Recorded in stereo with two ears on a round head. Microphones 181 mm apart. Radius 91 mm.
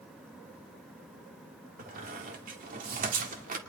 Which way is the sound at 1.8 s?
40° right (ahead or behind).